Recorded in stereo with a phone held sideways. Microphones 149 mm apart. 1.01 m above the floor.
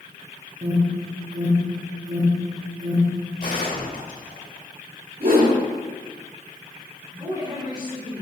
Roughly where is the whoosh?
Right.